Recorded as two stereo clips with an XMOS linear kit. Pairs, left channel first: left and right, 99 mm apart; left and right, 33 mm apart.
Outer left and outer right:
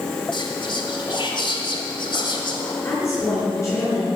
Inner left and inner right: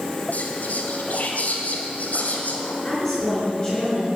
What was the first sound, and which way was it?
Whispering, 55° left (ahead or behind).